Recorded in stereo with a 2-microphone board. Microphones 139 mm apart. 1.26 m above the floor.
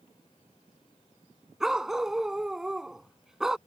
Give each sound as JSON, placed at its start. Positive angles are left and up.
{"t": 1.6, "sound": "a dog barking", "side_deg": -5}